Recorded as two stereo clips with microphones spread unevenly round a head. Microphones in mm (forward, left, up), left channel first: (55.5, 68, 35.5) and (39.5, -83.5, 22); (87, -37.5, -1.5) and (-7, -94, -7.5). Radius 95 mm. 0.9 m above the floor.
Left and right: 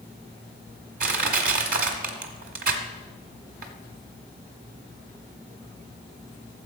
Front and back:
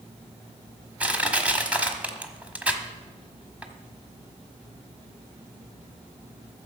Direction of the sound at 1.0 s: 70° right.